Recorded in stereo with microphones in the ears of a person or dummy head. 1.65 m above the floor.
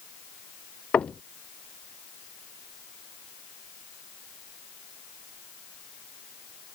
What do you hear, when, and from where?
0.9 s knocking: 5° left (ahead or behind)